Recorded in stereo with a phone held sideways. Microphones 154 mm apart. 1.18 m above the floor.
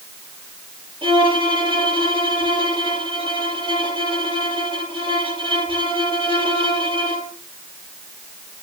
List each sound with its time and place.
1.0 s a violin: 35° right (ahead or behind), 5 m